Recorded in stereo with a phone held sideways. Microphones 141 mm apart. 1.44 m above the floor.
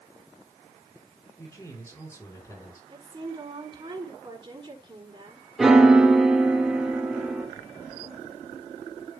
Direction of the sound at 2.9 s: 35° right (ahead or behind).